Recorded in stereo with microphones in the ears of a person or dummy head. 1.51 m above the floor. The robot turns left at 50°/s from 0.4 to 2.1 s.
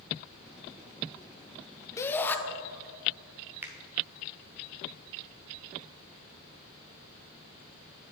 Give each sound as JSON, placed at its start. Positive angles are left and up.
{"t": 2.0, "sound": "a shout", "side_deg": 20, "distance_m": 0.7}
{"t": 3.6, "sound": "a finger snap", "side_deg": -15, "distance_m": 0.8}